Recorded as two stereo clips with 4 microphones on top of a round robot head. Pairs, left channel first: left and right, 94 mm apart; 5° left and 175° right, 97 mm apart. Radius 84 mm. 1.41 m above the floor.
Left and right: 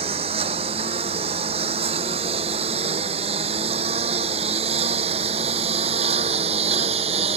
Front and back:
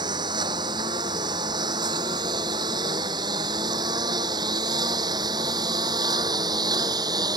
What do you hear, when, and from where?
0.0 s a lawn mower: 120° right; by 7.4 s 115° right